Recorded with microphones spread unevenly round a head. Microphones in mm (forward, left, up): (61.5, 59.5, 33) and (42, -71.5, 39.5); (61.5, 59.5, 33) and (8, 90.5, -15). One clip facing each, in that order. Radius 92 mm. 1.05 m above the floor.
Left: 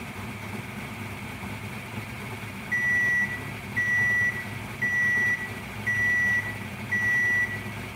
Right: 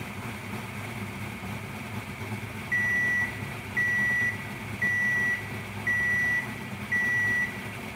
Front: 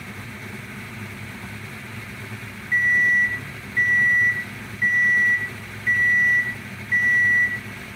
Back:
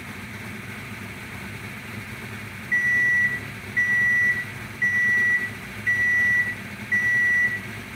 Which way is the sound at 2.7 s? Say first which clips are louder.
Left 2 dB, front 3 dB; 15° left.